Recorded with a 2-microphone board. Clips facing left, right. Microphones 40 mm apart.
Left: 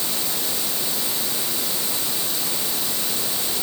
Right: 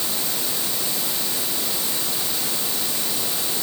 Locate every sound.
Only background noise.